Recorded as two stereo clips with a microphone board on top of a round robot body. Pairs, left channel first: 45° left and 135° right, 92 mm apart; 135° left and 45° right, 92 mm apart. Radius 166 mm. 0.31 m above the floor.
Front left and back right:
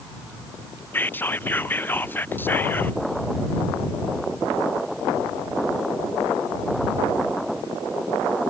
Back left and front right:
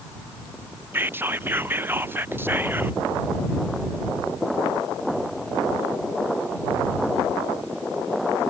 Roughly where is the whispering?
Ahead.